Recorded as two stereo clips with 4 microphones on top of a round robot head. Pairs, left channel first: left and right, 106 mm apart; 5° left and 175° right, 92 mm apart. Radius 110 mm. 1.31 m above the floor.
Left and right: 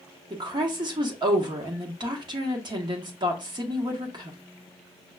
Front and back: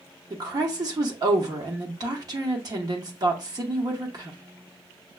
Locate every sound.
0.3 s a woman speaking: 135° right, 0.7 m